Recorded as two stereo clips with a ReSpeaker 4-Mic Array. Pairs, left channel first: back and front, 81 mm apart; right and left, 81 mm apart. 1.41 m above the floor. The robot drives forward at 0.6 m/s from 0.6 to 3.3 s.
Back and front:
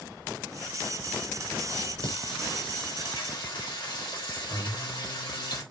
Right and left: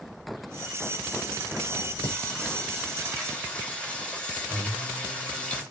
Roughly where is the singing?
Behind.